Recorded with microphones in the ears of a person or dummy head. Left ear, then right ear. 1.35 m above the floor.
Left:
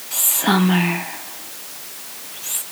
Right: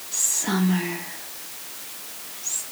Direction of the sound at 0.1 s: 55° left (ahead or behind).